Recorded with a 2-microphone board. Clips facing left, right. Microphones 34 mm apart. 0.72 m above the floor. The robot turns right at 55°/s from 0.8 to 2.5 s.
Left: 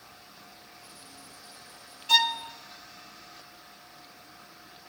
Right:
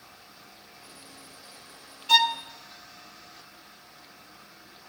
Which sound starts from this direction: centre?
A violin, at 2.1 s.